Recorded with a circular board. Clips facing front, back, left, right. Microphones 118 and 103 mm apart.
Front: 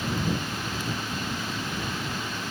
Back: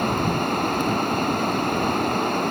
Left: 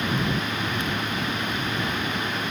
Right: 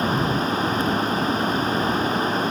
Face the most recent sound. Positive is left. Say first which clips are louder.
# back 7 dB, right 4 dB
turn(degrees=-145)